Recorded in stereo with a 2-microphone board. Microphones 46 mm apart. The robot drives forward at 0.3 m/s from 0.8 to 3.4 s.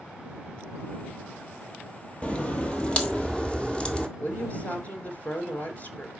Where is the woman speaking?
35° left (ahead or behind), 2 m.